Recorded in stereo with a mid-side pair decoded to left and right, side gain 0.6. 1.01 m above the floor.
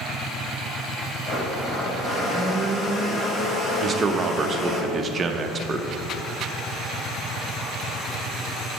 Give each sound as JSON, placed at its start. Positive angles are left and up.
{"t": 1.3, "sound": "a blender", "azimuth_deg": 15, "distance_m": 1.8}
{"t": 3.8, "sound": "a man speaking", "azimuth_deg": -30, "distance_m": 0.7}